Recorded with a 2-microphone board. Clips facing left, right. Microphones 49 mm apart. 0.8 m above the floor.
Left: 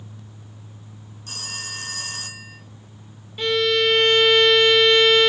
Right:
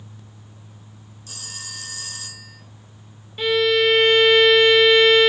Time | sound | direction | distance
1.3 | a phone ringing | 45° left (ahead or behind) | 2.5 m
3.4 | a violin | 5° right (ahead or behind) | 1.0 m